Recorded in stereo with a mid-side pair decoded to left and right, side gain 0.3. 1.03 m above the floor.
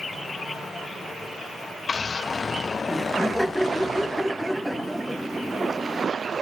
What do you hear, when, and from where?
2.9 s laughter: 5° left, 1.8 m